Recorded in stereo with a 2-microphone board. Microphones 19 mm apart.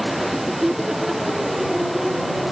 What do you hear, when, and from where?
0.2 s laughter: 30° right (ahead or behind); by 2.3 s 25° right (ahead or behind)